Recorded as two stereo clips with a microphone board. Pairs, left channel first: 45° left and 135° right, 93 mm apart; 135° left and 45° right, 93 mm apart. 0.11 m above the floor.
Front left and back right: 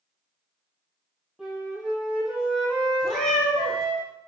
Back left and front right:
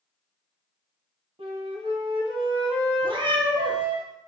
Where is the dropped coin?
I don't hear a dropped coin.